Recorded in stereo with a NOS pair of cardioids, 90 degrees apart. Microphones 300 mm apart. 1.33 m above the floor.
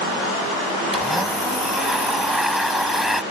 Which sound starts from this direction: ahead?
A blender, at 0.9 s.